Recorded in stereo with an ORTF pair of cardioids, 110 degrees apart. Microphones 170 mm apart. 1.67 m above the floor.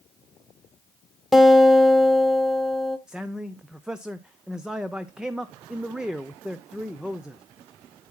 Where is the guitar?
Straight ahead, 1.5 m.